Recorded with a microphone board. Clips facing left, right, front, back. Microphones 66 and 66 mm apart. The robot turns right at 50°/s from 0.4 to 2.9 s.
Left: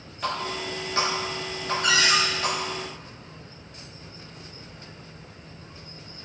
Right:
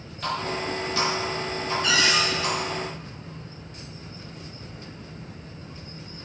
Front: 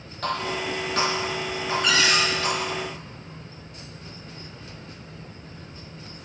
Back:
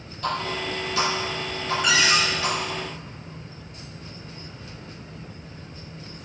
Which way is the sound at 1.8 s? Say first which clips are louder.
Left 1 dB, back 1 dB; 95° left.